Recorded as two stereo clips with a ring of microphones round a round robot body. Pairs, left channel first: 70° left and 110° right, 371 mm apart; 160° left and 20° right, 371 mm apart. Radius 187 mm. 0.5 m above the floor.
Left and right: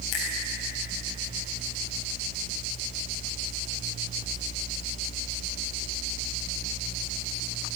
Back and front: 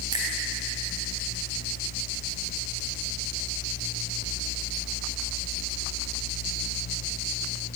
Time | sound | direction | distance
0.1 | a finger snap | 55° left | 3 m